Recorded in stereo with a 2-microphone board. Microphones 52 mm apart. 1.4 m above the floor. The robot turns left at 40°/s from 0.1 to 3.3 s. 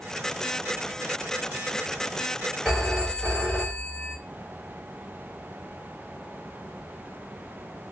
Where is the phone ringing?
10° right (ahead or behind), 1.6 m; by 4.2 s 15° left (ahead or behind), 1.6 m.